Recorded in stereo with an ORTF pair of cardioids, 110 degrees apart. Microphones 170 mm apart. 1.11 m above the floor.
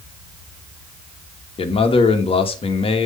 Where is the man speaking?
35° left, 1.4 m.